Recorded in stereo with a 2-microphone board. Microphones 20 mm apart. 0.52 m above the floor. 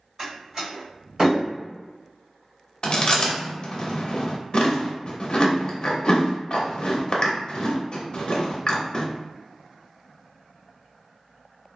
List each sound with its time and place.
0.2 s a door slam: 35° right (ahead or behind), 1.9 m
2.8 s chewing: 50° left (ahead or behind), 0.6 m